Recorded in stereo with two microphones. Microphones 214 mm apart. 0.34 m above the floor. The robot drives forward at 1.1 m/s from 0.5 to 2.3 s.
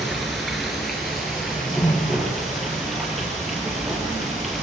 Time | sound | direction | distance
0.0 | running water | centre (ahead or behind) | 4.5 m
1.4 | a whoosh | 20° left (ahead or behind) | 1.1 m